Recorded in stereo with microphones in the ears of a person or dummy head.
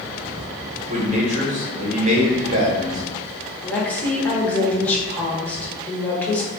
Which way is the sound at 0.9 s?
40° right (ahead or behind).